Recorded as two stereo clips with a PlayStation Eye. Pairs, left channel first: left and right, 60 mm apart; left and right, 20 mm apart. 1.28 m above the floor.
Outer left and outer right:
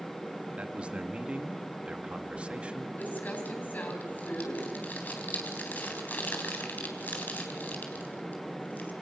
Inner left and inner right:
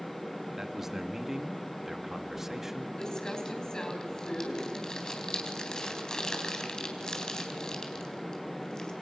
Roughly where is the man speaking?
Centre.